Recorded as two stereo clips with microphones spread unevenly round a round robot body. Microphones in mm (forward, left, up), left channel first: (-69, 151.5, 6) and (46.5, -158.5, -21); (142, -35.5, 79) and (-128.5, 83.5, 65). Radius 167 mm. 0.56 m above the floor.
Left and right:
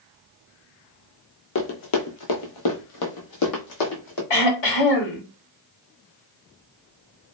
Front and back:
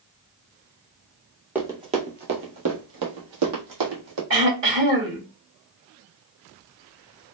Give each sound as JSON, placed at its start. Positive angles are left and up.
{"t": 1.6, "sound": "running footsteps", "azimuth_deg": 70, "distance_m": 0.8}
{"t": 4.3, "sound": "throat clearing", "azimuth_deg": 110, "distance_m": 1.5}